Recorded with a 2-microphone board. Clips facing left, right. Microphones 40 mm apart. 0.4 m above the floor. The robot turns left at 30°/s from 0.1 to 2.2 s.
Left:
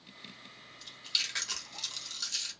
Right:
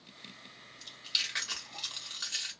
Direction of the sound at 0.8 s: Centre (ahead or behind).